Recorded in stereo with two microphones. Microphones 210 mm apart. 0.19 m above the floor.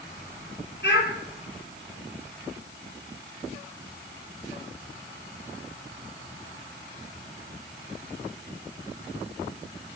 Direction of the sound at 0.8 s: 55° left (ahead or behind).